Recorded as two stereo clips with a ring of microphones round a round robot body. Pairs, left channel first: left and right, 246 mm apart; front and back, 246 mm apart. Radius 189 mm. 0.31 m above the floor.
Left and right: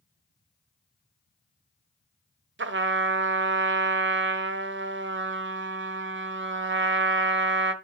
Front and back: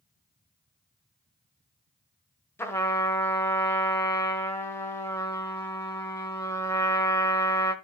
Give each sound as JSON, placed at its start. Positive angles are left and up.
{"t": 2.6, "sound": "a trumpet", "azimuth_deg": -80, "distance_m": 1.3}